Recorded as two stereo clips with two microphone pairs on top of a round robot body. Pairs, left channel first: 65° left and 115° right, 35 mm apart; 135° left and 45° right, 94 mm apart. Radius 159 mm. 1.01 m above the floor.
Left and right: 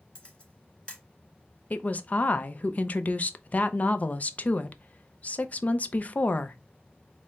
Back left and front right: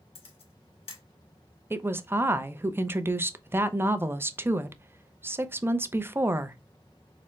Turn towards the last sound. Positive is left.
turn(degrees=25)